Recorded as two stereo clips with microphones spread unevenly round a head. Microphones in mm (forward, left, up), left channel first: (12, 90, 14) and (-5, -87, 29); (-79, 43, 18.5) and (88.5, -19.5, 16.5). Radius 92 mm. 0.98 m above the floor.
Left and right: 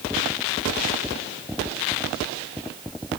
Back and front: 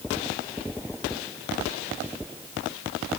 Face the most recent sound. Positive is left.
No sound to turn to.